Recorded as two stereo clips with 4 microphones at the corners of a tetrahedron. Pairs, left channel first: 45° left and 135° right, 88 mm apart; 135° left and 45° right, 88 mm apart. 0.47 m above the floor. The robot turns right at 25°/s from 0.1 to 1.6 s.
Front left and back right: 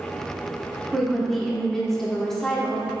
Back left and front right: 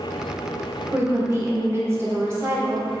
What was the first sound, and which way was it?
A woman speaking, 55° right.